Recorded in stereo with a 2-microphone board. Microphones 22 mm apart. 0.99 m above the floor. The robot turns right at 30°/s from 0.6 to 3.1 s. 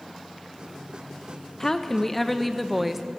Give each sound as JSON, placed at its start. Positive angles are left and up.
{"t": 1.6, "sound": "a woman speaking", "azimuth_deg": 150, "distance_m": 0.6}